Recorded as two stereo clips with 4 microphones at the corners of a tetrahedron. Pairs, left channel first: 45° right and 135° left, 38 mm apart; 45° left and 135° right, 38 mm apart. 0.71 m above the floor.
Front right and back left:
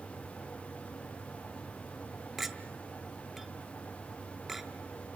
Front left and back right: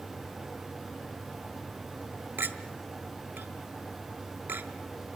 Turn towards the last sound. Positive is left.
turn(degrees=-145)